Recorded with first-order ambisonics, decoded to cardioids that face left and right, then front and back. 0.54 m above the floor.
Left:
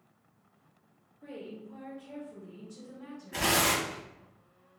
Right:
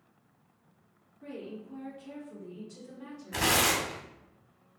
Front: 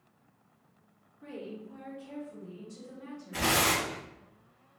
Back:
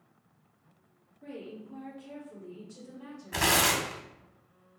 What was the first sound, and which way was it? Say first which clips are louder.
A woman speaking: right 1 dB, front 1 dB; 65° right.